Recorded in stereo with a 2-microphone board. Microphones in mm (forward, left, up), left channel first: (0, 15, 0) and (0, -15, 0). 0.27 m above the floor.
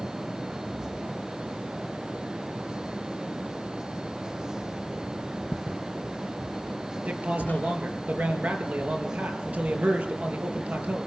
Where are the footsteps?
15° left (ahead or behind), 0.8 m; by 7.8 s 70° left (ahead or behind), 2 m.